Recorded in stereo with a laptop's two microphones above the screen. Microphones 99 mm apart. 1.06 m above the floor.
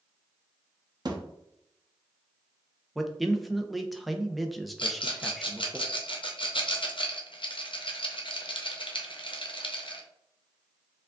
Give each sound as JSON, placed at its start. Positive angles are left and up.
{"t": 1.1, "sound": "a thud", "side_deg": -45, "distance_m": 0.6}
{"t": 3.0, "sound": "a man speaking", "side_deg": 0, "distance_m": 0.5}
{"t": 4.8, "sound": "a rattle", "side_deg": 65, "distance_m": 0.6}